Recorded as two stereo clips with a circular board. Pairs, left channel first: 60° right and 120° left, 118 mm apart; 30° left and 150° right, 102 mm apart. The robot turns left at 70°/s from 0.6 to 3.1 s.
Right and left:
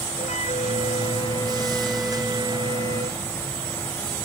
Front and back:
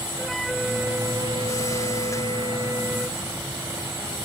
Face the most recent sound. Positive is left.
turn(degrees=130)